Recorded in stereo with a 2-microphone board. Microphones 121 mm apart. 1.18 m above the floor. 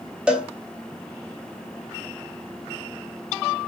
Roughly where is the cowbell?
Centre.